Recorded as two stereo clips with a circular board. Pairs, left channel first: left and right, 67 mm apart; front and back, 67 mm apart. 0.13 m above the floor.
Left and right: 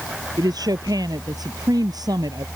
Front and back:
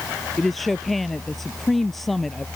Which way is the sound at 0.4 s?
90° right.